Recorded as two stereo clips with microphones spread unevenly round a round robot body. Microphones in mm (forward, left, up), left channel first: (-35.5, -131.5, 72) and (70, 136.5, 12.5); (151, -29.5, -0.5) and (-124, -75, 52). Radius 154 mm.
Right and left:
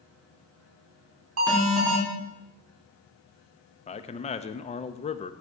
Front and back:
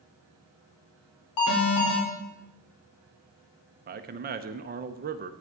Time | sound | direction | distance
1.4 | an alarm | 30° left | 4 m
3.9 | a man speaking | 175° right | 0.7 m